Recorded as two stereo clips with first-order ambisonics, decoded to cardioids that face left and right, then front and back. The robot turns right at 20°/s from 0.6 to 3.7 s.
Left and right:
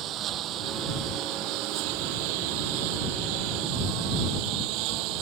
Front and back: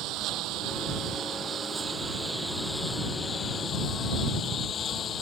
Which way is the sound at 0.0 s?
140° right.